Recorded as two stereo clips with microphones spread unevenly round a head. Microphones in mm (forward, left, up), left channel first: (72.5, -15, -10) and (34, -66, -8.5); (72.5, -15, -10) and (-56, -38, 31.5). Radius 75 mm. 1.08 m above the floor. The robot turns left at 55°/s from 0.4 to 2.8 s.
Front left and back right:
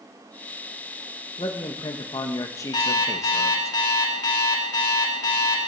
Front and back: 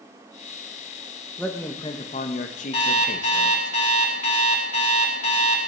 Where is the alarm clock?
65° left, 2 m; by 5.6 s 60° left, 2 m.